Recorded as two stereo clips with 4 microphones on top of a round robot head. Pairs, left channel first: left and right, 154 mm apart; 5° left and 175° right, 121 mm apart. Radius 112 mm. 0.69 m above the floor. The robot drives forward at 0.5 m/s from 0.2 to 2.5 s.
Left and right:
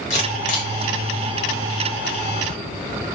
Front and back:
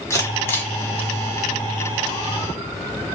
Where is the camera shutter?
65° left, 1.5 m; by 0.7 s 80° left, 1.4 m.